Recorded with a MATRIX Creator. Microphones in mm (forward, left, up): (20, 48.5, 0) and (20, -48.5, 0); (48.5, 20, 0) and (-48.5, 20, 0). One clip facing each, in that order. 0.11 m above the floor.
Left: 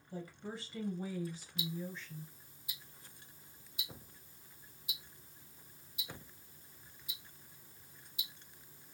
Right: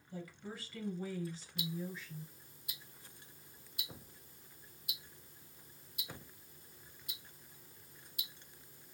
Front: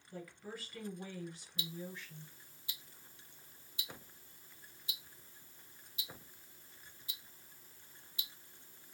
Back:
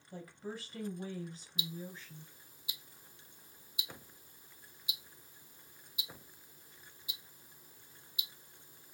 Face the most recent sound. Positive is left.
turn(degrees=-110)